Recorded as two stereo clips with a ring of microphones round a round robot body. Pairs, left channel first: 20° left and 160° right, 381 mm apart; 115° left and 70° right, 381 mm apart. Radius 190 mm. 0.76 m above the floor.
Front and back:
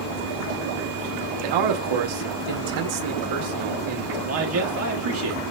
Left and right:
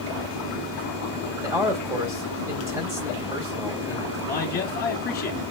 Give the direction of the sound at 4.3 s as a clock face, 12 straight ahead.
6 o'clock.